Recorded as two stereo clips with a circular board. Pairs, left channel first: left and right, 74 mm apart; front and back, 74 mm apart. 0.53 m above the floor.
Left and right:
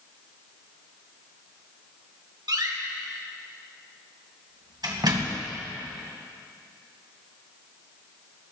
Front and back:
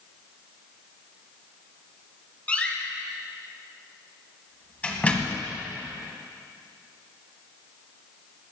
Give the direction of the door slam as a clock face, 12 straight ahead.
2 o'clock.